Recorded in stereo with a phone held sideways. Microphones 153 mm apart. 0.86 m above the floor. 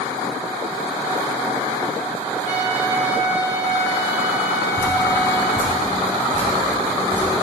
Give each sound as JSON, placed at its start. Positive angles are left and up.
{"t": 2.5, "sound": "a trumpet", "side_deg": -10, "distance_m": 1.7}
{"t": 4.8, "sound": "dripping", "side_deg": 10, "distance_m": 3.5}